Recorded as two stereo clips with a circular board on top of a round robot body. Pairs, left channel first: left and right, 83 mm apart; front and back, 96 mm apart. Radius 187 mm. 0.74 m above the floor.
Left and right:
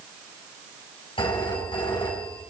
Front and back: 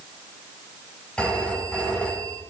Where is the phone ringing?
80° left, 5.5 m.